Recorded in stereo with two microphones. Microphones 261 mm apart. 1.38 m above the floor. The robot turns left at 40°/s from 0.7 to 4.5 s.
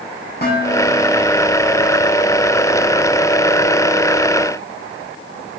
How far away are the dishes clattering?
About 6 m.